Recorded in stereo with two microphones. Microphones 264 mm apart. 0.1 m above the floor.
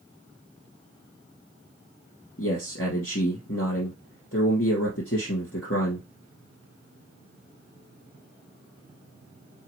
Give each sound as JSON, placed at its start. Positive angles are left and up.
{"t": 2.4, "sound": "a man speaking", "side_deg": 50, "distance_m": 2.5}